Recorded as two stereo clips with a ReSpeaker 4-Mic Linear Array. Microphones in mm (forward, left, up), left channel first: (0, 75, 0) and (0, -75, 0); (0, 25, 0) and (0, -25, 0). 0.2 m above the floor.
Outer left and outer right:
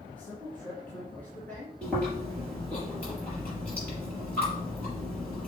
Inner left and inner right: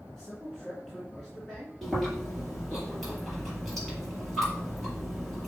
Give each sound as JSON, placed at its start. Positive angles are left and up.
{"t": 0.2, "sound": "a man speaking", "side_deg": 10, "distance_m": 2.5}
{"t": 1.8, "sound": "chewing", "side_deg": 10, "distance_m": 5.0}